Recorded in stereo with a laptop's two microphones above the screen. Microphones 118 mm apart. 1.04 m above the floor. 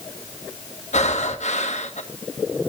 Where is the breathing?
75° left (ahead or behind), 1.6 m.